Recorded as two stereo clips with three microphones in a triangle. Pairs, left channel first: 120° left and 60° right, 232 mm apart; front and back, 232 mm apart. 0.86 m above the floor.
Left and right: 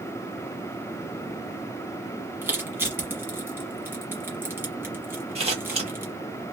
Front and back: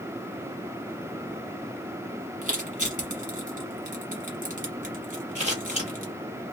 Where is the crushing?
140° right, 1.1 m.